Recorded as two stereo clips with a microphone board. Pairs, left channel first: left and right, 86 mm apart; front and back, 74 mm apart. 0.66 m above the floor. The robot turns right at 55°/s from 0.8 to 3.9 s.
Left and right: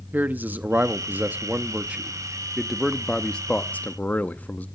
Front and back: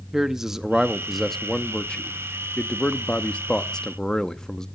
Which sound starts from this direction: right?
A man speaking, at 0.1 s.